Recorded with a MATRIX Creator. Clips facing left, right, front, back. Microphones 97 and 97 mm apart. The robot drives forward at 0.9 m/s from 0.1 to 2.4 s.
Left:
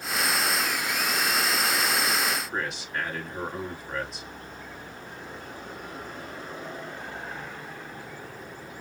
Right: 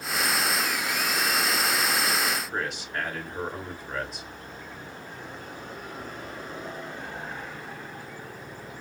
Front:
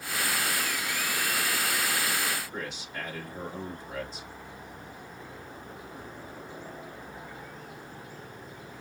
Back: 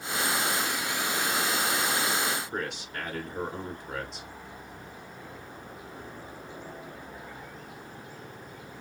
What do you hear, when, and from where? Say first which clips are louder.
2.5 s a man speaking: even, back 3 dB; straight behind, 3 m